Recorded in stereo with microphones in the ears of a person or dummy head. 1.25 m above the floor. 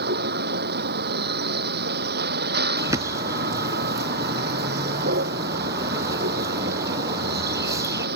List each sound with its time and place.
0.0 s a vehicle: 55° right (ahead or behind)
2.8 s a bird: 15° right (ahead or behind)